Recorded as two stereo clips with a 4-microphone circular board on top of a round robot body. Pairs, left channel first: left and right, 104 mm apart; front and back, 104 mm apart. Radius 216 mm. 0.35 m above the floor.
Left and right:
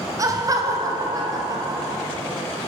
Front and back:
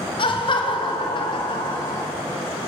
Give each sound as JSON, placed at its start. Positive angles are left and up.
{"t": 0.2, "sound": "laughter", "azimuth_deg": -30, "distance_m": 3.5}